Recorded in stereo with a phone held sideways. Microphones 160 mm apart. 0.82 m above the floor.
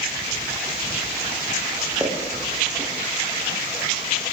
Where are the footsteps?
20° right (ahead or behind), 5.5 m.